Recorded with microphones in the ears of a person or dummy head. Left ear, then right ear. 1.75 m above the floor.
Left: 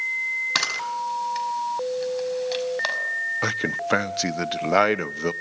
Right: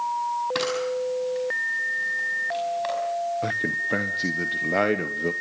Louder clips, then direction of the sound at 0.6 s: Left 1 dB; 50° left (ahead or behind).